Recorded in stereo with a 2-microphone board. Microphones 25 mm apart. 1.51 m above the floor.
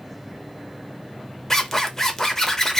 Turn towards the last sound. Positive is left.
turn(degrees=15)  # may be behind; listen again after turning